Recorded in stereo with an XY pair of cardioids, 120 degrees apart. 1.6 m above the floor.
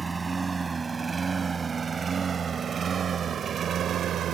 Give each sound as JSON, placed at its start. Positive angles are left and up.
{"t": 0.0, "sound": "a lawn mower", "azimuth_deg": -20}